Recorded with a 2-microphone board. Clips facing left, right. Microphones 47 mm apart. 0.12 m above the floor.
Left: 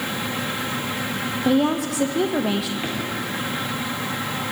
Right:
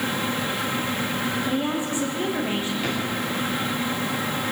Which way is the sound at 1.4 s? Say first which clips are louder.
Left 5 dB; 70° left (ahead or behind).